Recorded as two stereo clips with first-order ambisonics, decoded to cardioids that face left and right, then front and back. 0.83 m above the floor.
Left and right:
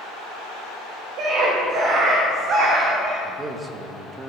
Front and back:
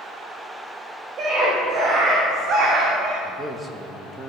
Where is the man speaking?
120° right, 1.0 m.